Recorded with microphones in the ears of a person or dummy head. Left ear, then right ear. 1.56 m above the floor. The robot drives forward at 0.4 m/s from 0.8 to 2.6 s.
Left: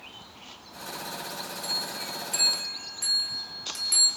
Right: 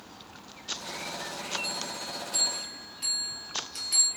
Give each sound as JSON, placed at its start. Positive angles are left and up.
{"t": 1.6, "sound": "a bell", "side_deg": 60, "distance_m": 1.7}